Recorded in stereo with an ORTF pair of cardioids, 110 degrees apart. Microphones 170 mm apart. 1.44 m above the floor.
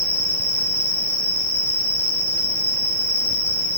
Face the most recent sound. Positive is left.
turn(degrees=-60)